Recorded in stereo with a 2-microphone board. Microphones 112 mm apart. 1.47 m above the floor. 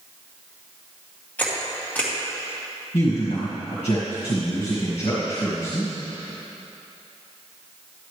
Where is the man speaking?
80° left, 1.7 m.